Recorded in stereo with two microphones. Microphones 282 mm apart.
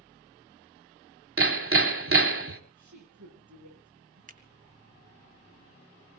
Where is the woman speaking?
80° right, 7.5 m.